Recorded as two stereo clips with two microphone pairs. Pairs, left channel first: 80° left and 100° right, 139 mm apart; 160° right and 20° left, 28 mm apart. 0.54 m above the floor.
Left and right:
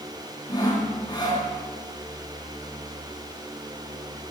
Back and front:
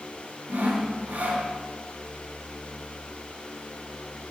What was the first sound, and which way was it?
Sawing, 25° left.